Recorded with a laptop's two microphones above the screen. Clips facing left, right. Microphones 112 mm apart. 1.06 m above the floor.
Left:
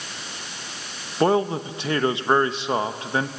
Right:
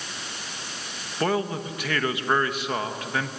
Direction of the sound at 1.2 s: 25° left (ahead or behind).